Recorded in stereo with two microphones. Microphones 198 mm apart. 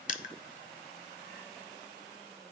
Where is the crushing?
45° left (ahead or behind), 0.5 m.